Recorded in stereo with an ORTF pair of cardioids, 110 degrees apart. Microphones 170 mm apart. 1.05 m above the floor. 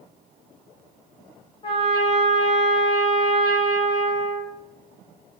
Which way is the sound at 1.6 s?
30° left.